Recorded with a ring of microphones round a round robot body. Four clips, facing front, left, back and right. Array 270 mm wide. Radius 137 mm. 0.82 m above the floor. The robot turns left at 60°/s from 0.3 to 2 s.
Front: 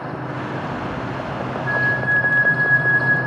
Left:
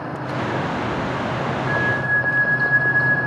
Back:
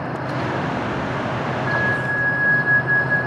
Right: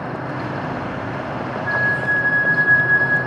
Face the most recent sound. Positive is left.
turn(degrees=-55)